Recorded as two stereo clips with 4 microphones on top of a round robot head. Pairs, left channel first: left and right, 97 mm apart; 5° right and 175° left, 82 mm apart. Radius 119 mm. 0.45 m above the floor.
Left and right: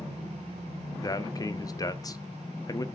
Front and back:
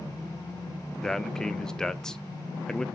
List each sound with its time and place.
1.0 s a man speaking: 75° left, 0.8 m